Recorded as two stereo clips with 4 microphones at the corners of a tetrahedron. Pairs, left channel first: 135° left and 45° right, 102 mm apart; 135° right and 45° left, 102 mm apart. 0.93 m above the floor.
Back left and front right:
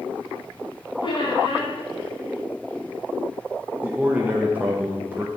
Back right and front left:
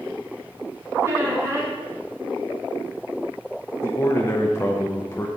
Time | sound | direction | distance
1.0 | a squeak | 105° left | 2 m
3.8 | a man speaking | 100° right | 0.6 m